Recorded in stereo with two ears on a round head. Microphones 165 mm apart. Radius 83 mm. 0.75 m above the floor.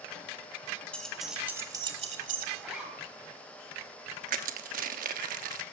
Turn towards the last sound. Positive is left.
turn(degrees=-50)  # may be behind; listen again after turning